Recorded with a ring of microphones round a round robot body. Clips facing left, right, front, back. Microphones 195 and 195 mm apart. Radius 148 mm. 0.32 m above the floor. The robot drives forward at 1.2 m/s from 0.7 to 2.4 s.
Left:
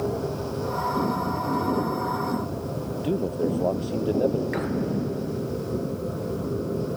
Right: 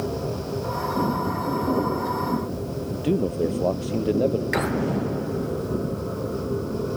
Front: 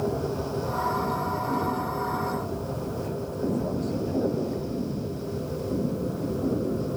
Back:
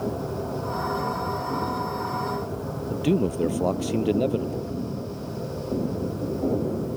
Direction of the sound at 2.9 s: 165° right.